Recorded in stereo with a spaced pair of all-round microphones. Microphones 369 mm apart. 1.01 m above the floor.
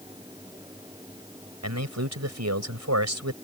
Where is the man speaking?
45° right (ahead or behind).